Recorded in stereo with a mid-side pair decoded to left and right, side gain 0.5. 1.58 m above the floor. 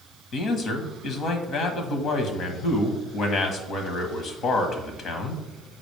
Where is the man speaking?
60° left, 1.4 m.